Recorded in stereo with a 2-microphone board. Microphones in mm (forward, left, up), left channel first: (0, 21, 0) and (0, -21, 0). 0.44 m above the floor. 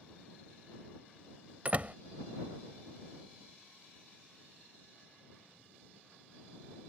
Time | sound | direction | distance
1.6 | a door slam | 35° right (ahead or behind) | ?